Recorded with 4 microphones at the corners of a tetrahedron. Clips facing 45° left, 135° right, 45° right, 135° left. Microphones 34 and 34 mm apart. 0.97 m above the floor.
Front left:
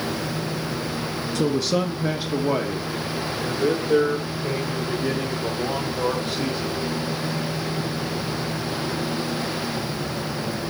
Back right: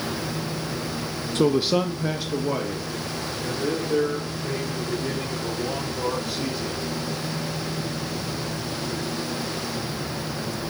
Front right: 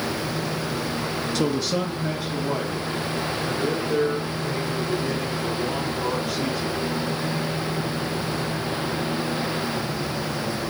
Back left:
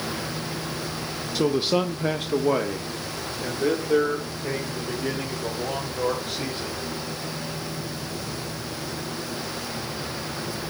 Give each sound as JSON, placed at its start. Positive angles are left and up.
{"t": 1.4, "sound": "a man speaking", "azimuth_deg": -145, "distance_m": 0.5}